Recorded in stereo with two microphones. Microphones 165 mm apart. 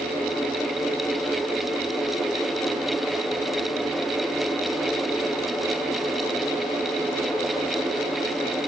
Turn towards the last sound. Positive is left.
No sound to turn to.